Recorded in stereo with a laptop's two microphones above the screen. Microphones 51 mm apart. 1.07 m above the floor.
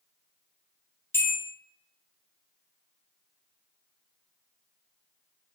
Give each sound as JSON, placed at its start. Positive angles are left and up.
{"t": 1.1, "sound": "a bell", "side_deg": 55, "distance_m": 0.8}